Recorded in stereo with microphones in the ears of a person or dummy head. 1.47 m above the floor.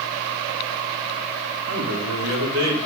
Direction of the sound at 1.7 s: 70° right (ahead or behind).